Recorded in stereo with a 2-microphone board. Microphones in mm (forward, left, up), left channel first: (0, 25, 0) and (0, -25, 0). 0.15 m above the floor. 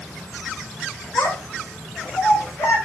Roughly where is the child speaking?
Left.